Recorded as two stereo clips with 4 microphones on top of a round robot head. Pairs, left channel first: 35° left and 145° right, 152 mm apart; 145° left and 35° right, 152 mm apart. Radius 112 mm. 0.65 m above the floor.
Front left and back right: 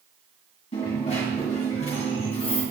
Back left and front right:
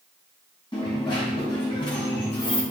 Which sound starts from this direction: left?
A dropped coin, at 0.7 s.